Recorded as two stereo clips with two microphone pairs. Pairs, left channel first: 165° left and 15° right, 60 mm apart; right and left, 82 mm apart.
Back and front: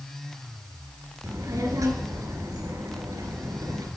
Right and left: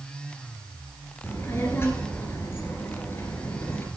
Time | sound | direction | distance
1.2 | a child speaking | 35° right | 2 m